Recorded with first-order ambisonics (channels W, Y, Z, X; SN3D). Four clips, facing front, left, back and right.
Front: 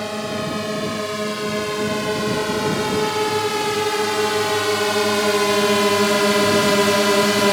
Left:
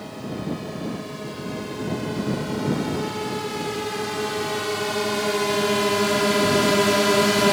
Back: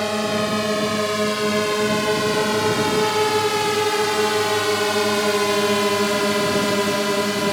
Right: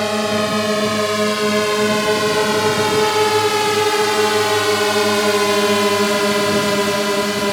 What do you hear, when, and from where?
0.0 s a drone: 105° right; by 7.5 s 10° left